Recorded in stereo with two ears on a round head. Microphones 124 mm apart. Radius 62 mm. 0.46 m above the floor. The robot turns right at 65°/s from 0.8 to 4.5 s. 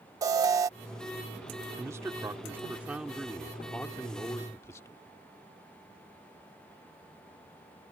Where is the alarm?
25° right (ahead or behind).